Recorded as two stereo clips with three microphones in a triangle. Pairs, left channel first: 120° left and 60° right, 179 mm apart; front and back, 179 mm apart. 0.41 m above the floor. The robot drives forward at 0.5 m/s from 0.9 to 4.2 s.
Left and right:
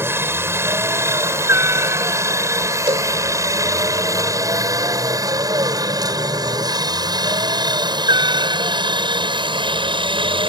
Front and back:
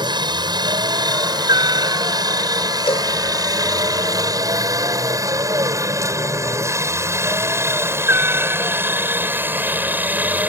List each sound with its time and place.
0.0 s a helicopter: 130° right; by 10.5 s 105° right
2.9 s a cowbell: 30° right; by 3.1 s 40° right